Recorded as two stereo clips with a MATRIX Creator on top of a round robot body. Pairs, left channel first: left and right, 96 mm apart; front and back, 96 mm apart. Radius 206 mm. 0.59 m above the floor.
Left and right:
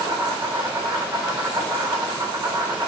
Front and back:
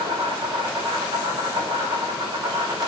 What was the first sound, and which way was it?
An insect, 145° right.